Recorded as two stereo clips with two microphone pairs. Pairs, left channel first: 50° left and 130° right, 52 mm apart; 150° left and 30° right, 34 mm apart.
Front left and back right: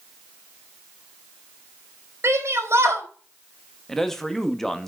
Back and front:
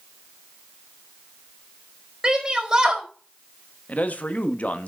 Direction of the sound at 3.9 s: 135° left.